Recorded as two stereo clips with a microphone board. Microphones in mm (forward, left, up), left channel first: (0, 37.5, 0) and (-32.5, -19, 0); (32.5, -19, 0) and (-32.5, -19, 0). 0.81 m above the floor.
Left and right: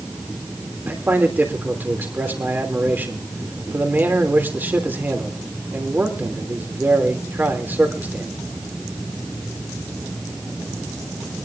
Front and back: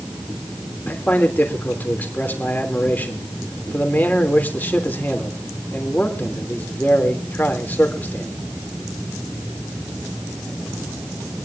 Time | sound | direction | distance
0.9 | a man speaking | 60° right | 3 m